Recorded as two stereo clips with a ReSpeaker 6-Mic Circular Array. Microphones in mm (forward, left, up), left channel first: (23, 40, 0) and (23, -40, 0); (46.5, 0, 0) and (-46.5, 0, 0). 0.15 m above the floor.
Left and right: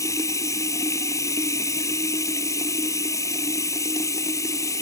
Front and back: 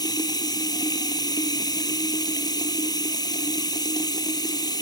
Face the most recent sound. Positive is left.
turn(degrees=40)